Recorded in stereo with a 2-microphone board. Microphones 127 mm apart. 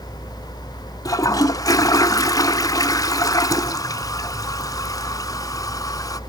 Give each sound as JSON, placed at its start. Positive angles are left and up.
{"t": 1.1, "sound": "a toilet flushing", "side_deg": 30, "distance_m": 0.6}